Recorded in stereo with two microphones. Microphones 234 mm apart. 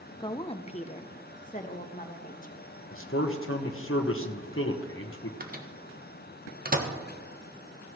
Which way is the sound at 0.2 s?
20° left (ahead or behind).